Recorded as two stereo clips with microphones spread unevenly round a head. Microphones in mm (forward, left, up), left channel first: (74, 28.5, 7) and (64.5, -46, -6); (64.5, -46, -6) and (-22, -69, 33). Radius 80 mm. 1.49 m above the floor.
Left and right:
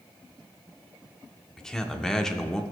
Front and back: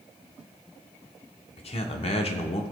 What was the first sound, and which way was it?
A man speaking, straight ahead.